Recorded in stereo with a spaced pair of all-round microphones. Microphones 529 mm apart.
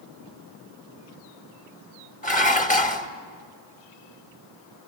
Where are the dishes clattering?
15° left (ahead or behind), 1.5 m.